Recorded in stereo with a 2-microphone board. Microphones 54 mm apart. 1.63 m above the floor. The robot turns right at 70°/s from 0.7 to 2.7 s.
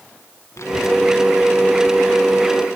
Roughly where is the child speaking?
Left.